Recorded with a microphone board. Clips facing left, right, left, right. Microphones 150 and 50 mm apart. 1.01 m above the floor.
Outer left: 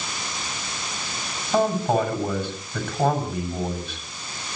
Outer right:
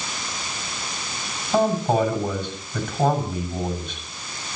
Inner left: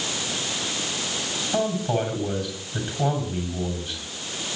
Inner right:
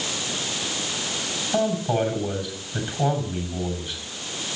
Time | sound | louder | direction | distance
1.5 | a man speaking | outer right 1 dB, inner right 2 dB | 5° left (ahead or behind) | 6.5 m